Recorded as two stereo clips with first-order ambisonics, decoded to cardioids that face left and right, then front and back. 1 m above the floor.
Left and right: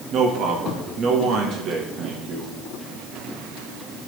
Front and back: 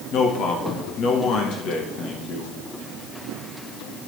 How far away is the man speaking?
About 1.4 m.